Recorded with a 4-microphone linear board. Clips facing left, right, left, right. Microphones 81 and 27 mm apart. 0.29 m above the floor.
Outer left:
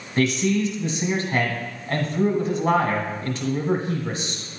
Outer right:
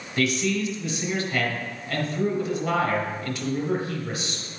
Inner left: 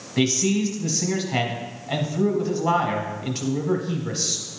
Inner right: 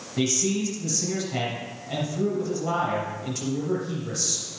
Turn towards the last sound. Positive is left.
turn(degrees=35)  # may be behind; listen again after turning